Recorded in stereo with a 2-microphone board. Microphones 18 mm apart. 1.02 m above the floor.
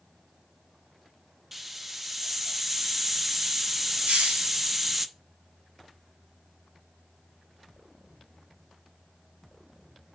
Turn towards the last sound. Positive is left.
turn(degrees=-90)